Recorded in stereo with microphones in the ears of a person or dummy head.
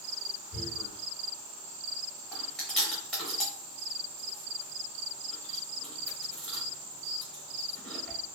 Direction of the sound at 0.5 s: 15° right (ahead or behind).